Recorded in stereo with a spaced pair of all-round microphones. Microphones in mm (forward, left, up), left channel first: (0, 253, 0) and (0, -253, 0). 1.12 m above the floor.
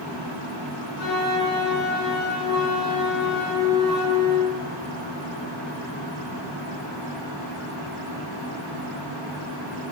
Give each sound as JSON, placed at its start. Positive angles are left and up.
{"t": 1.0, "sound": "a flute", "side_deg": 50, "distance_m": 1.3}